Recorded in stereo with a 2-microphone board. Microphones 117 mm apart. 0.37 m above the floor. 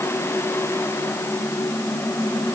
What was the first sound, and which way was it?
Only background noise.